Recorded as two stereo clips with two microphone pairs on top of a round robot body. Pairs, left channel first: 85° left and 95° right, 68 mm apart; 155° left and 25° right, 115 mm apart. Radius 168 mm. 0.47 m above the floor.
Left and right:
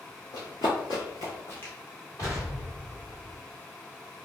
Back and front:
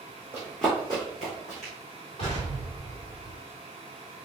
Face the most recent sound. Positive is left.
turn(degrees=120)